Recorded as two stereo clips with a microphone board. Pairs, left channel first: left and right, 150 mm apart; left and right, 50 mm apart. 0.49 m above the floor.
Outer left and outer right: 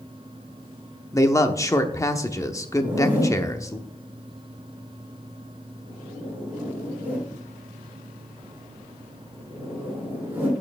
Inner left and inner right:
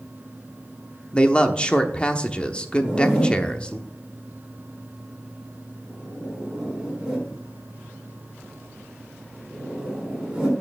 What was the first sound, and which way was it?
A man speaking, 20° left (ahead or behind).